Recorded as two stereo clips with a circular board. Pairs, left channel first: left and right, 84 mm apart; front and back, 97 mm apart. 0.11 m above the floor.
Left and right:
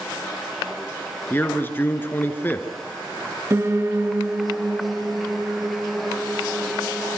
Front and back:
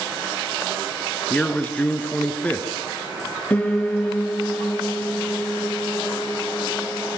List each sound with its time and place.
1.3 s a man speaking: 60° left, 1.8 m
3.5 s a piano: 60° right, 2 m